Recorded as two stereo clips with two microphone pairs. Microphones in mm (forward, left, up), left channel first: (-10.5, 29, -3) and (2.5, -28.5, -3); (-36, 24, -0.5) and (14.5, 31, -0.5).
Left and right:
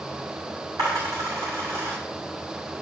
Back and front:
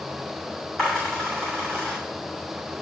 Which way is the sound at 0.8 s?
100° right.